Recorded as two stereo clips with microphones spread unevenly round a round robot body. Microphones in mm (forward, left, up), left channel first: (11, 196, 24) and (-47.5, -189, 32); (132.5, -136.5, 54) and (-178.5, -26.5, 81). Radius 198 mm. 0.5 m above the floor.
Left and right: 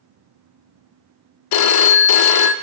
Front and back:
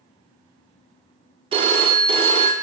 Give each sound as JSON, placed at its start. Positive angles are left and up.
{"t": 1.5, "sound": "a phone ringing", "azimuth_deg": 85, "distance_m": 0.5}